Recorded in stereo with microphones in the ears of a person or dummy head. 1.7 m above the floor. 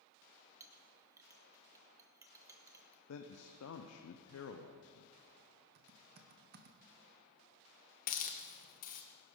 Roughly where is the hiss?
Left.